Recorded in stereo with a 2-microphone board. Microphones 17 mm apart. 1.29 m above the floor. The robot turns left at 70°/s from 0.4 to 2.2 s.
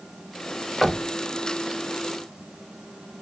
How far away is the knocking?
About 0.7 m.